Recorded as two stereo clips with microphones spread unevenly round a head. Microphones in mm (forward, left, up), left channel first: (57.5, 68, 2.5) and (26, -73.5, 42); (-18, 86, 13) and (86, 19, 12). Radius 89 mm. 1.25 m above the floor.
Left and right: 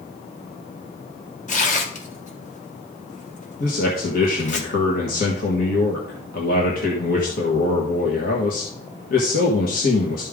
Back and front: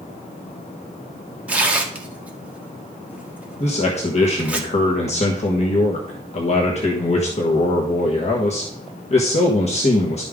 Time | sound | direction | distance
1.5 | tearing paper | 45° left | 1.7 m
3.6 | a man speaking | 110° left | 1.4 m